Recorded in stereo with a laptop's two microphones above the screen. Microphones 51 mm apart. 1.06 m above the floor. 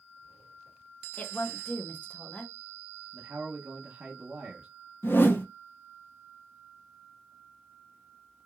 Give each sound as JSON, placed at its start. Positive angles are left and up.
{"t": 1.2, "sound": "a woman speaking", "side_deg": 30, "distance_m": 0.6}
{"t": 3.1, "sound": "a man speaking", "side_deg": -25, "distance_m": 1.0}
{"t": 5.0, "sound": "a whoosh", "side_deg": 45, "distance_m": 0.5}